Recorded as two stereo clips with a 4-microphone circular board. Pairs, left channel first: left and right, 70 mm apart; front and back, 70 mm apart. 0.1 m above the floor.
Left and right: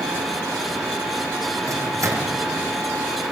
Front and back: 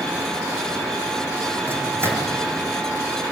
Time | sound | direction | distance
1.7 | a microwave | 125° right | 4 m